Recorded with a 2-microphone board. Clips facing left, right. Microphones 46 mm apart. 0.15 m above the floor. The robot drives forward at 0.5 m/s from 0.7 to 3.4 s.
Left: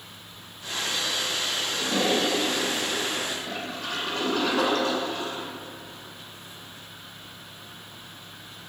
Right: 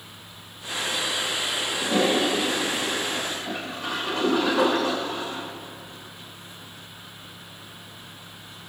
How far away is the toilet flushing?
About 4 m.